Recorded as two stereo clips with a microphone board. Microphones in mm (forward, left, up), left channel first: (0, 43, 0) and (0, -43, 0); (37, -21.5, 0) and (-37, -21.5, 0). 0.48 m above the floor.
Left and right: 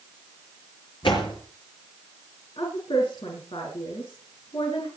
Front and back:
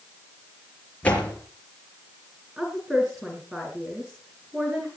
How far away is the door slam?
About 5 m.